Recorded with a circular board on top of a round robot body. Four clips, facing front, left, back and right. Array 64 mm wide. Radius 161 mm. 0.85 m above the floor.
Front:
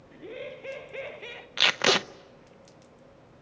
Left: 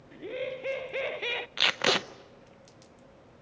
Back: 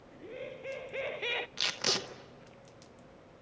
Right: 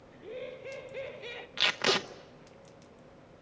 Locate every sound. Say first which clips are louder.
0.1 s laughter: left 6 dB, front 4 dB; 70° left, 2 m; by 1.5 s 140° left, 0.7 m
1.6 s tape being pulled: left 1 dB, front 11 dB; 20° left, 1.1 m